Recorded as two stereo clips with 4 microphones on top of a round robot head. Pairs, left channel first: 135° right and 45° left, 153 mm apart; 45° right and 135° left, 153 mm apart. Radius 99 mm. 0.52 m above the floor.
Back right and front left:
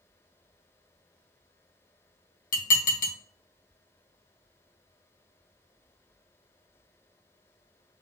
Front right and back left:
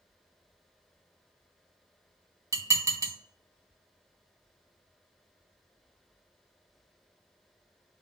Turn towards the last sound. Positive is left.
turn(degrees=-155)